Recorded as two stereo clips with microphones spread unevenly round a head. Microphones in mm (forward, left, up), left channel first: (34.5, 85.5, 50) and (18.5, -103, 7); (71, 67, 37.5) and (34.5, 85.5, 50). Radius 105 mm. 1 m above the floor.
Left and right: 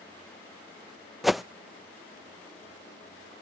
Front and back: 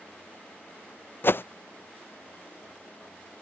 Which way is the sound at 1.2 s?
10° right.